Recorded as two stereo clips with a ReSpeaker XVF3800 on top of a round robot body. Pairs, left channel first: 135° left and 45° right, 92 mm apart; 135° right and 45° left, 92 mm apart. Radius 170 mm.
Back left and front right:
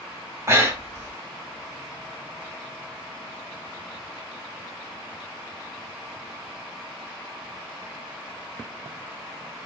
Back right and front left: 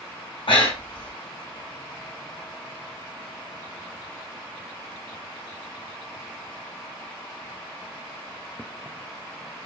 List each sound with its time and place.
0.5 s breathing: 105° right, 0.9 m